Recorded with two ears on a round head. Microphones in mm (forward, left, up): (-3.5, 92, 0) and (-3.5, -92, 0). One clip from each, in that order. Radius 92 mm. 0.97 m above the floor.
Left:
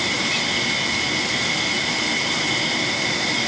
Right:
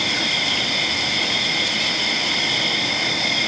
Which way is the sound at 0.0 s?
45° right (ahead or behind).